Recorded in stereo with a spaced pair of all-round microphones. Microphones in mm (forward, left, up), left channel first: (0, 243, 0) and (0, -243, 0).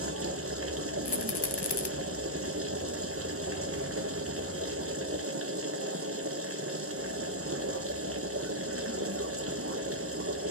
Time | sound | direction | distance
0.0 | a machine running | 30° right (ahead or behind) | 0.9 m
1.1 | a rattle | 55° left (ahead or behind) | 0.7 m